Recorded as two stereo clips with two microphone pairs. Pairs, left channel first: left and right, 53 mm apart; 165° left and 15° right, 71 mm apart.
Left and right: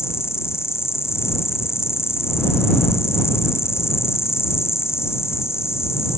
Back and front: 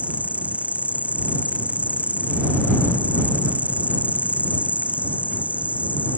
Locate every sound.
0.0 s an insect: 55° left